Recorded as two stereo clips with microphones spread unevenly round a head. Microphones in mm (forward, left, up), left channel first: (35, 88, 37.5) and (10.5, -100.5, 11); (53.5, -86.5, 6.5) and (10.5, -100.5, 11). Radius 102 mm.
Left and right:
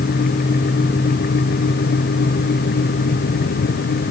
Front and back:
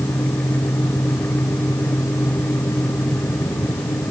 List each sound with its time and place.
Only background noise.